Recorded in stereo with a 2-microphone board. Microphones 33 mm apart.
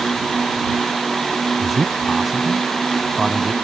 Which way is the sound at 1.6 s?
10° right (ahead or behind).